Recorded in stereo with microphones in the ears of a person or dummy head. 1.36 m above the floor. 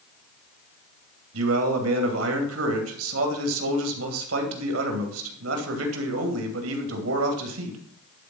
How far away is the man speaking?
About 2.5 m.